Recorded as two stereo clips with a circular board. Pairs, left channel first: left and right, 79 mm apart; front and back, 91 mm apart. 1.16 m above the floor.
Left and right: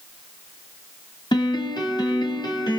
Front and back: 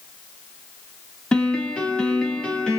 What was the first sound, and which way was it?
A piano, 80° left.